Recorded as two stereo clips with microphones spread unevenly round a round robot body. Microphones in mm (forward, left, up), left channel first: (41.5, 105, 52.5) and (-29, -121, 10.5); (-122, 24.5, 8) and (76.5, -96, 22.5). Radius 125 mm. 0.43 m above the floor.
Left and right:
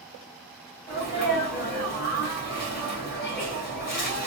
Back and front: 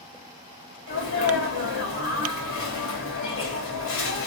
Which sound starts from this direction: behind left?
A sneeze, at 0.9 s.